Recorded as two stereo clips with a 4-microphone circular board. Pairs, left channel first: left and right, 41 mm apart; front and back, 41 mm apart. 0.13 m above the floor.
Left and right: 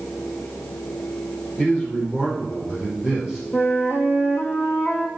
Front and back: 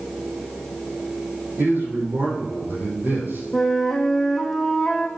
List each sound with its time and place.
1.6 s a man speaking: 150° left, 6 m; by 3.4 s 160° left, 5 m
3.5 s a flute: 85° left, 2 m